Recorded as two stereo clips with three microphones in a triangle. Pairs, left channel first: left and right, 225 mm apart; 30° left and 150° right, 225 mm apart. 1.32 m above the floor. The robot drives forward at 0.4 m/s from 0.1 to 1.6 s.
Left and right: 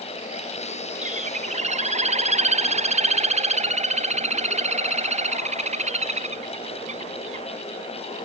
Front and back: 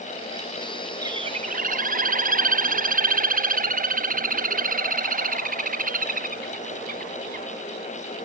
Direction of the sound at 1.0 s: 90° right.